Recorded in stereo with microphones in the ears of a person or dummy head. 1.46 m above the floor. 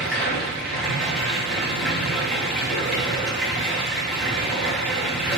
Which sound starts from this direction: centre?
Running water, at 0.0 s.